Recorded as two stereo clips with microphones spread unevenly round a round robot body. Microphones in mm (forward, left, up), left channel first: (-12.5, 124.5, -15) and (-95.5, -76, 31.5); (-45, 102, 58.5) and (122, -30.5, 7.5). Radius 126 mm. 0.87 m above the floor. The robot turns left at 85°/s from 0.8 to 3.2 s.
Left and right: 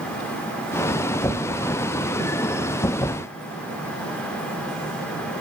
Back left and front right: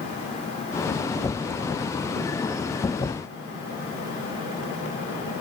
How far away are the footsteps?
I don't hear footsteps.